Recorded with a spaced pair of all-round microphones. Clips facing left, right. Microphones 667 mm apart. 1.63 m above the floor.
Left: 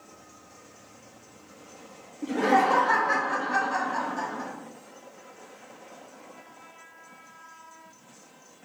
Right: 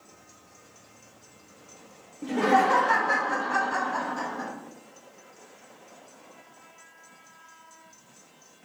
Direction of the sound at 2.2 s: 25° right (ahead or behind).